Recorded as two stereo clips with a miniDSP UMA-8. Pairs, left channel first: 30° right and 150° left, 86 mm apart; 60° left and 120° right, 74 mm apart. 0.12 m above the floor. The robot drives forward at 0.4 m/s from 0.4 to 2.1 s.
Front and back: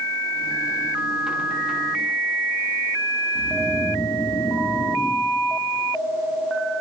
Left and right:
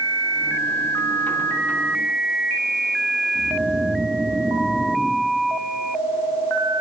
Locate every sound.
3.4 s snoring: 55° right, 7.5 m